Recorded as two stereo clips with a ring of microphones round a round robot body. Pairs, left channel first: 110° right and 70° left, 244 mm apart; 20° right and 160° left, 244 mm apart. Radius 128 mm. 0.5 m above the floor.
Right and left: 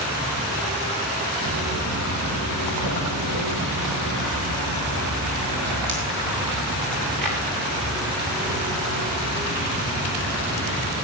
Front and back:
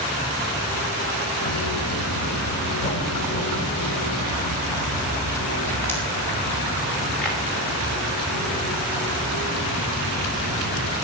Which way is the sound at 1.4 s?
30° left.